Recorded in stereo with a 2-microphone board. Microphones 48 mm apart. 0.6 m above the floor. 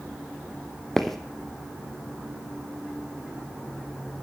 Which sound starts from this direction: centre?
Footsteps, at 1.0 s.